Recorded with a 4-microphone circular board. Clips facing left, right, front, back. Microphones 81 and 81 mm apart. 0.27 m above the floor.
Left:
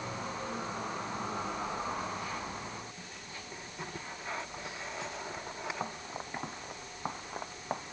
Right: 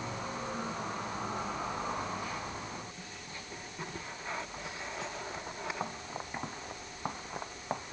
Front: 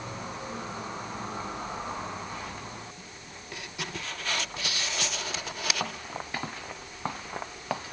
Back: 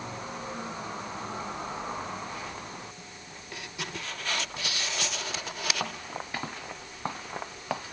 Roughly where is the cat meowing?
No cat meowing in this recording.